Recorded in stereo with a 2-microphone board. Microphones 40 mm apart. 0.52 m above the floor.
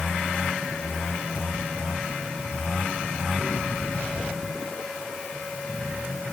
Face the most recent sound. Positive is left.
No sound to turn to.